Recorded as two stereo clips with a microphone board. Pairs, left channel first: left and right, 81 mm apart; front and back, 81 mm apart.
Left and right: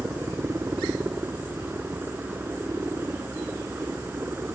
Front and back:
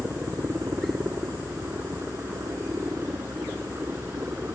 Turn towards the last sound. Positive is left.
turn(degrees=-135)